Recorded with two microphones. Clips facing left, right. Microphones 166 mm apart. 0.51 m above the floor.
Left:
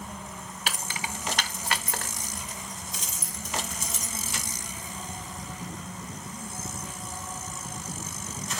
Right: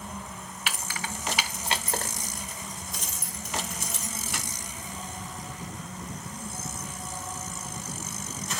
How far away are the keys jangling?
About 0.9 m.